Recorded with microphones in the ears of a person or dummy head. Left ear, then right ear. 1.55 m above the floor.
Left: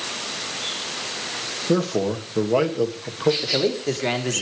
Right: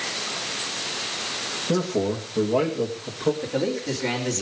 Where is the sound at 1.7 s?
85° left, 2.5 m.